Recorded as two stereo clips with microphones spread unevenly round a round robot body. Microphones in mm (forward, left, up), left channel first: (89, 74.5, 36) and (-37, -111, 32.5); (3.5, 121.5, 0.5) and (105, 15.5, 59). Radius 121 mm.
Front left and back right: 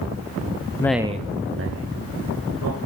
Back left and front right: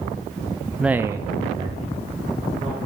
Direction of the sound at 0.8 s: 105° left.